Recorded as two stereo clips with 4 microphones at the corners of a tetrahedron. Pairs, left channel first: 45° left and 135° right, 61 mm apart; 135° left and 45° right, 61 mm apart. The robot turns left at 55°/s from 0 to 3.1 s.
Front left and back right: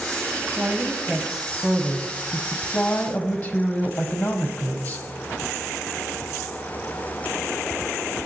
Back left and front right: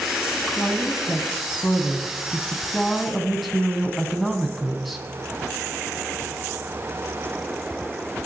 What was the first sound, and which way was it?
A woman speaking, 175° right.